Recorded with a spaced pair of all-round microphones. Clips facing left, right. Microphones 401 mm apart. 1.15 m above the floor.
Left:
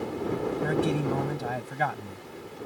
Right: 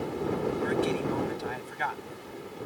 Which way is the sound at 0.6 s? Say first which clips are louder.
Left 3 dB; 60° left (ahead or behind).